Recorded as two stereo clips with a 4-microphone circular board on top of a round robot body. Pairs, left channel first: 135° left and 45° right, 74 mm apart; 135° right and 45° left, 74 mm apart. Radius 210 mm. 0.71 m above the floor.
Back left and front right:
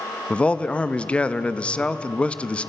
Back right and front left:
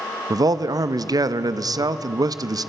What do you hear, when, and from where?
0.3 s a man speaking: 60° left, 1.1 m